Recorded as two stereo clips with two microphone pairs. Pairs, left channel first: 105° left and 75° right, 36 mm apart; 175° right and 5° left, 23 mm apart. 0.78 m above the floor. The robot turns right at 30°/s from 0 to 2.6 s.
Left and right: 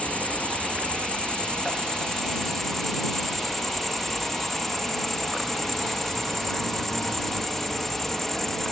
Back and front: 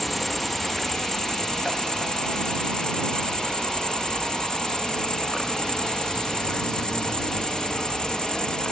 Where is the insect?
100° left; by 8.7 s straight behind.